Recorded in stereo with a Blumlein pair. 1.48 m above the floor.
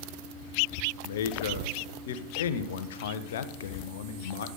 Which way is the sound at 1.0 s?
60° left.